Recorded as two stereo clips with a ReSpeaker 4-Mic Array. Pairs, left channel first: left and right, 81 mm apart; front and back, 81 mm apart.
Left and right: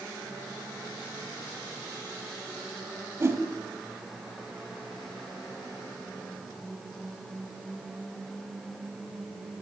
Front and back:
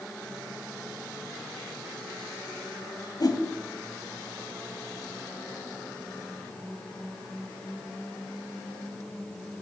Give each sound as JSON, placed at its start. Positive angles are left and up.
{"t": 3.2, "sound": "a whoosh", "azimuth_deg": -30, "distance_m": 0.8}